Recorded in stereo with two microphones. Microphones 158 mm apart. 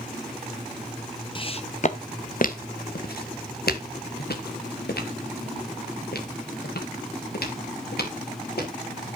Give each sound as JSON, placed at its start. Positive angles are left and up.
{"t": 1.4, "sound": "footsteps", "side_deg": 30, "distance_m": 1.2}